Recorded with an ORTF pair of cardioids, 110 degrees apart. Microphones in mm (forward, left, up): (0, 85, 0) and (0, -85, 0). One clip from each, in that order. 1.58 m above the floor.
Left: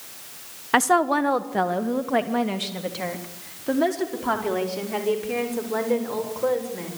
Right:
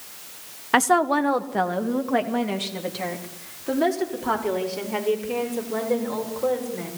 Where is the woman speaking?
5° right, 1.2 m; by 6.9 s 10° left, 7.5 m.